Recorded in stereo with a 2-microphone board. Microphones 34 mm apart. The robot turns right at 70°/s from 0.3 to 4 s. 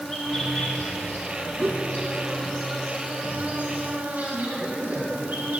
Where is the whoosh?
70° right (ahead or behind), 1.8 m; by 1.8 s 75° right (ahead or behind), 1.8 m.